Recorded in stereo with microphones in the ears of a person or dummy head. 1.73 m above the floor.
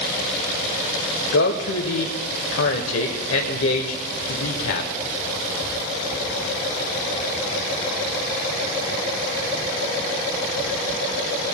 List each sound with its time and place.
1.3 s a man speaking: 75° left (ahead or behind), 1.0 m